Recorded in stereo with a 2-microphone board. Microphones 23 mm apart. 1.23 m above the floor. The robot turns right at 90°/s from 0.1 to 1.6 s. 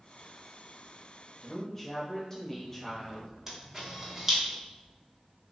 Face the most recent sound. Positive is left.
turn(degrees=-15)  # may be behind; listen again after turning